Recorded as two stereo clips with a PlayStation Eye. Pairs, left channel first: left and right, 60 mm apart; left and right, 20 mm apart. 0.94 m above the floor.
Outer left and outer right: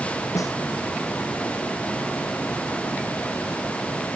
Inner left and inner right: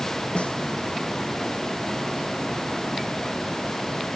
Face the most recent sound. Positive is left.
turn(degrees=65)  # may be behind; listen again after turning